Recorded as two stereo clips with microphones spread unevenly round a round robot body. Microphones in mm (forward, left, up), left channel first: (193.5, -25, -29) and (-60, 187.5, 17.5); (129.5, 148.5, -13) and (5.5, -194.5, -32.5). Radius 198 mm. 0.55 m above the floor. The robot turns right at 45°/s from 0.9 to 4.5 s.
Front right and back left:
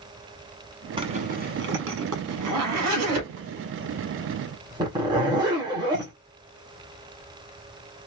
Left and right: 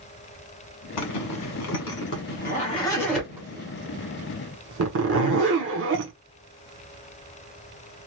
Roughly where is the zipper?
Ahead left.